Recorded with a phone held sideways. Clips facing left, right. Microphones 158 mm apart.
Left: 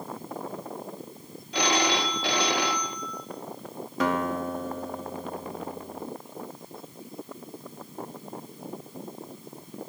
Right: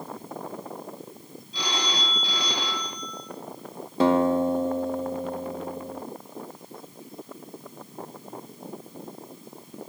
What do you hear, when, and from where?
1.5 s a phone ringing: 65° left (ahead or behind), 3 m
4.0 s a guitar: 30° right (ahead or behind), 1.6 m